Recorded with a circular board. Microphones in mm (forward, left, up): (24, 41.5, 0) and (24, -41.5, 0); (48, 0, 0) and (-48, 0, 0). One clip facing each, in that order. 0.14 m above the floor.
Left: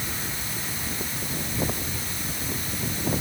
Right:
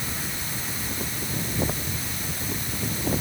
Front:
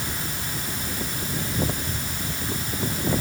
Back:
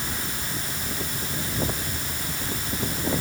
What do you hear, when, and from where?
Only background noise.